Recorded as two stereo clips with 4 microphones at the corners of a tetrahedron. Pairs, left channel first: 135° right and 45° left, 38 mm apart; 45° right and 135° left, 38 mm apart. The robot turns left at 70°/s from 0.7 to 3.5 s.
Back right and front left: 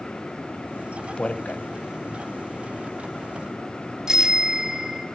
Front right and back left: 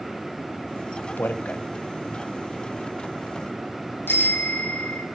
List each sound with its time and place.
1.2 s a man speaking: 70° right, 0.7 m; by 1.6 s 100° right, 0.7 m
4.1 s a bicycle bell: 25° right, 2 m